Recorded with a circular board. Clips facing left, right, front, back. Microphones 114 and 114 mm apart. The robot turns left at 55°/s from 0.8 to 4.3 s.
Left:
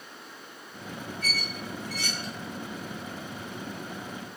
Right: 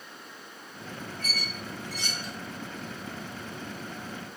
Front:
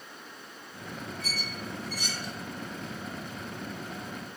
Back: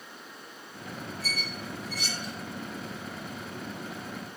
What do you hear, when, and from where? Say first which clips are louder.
1.2 s a squeak: left 2 dB, back 1 dB; 55° left, 1.4 m; by 2.3 s 5° right, 1.4 m